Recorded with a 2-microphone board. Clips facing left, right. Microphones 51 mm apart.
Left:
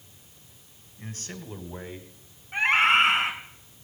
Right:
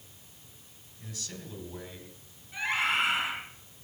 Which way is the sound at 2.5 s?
50° left (ahead or behind).